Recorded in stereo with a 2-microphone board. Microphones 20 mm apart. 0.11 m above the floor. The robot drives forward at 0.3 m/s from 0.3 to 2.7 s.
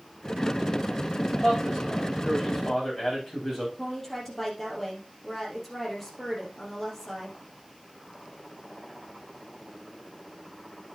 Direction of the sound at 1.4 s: 5° left (ahead or behind).